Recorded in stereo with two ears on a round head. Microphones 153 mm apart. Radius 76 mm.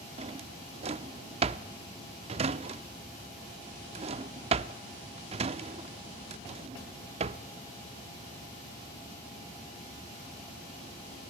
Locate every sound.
0.2 s a drawer: 35° right (ahead or behind), 0.5 m